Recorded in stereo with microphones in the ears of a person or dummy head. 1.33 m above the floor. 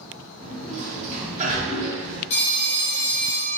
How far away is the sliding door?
About 1.1 m.